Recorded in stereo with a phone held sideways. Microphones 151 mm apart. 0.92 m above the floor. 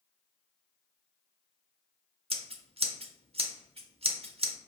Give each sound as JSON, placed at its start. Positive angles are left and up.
{"t": 2.3, "sound": "scissors", "side_deg": -40, "distance_m": 0.7}